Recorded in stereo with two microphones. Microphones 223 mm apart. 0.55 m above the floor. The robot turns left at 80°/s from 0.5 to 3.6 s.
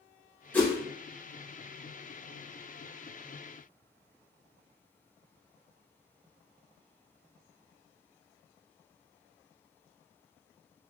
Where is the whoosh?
10° left (ahead or behind), 1.7 m; by 0.7 s 5° right (ahead or behind), 1.7 m.